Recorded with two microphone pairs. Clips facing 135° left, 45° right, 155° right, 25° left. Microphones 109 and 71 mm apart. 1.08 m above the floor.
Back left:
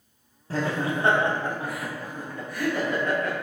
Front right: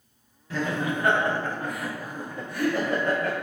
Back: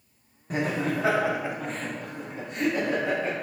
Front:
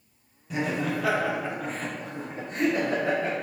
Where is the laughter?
175° left, 0.8 m; by 3.3 s 5° left, 1.0 m.